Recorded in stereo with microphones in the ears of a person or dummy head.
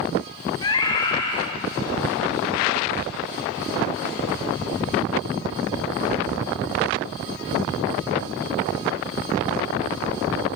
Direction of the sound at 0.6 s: 25° left (ahead or behind).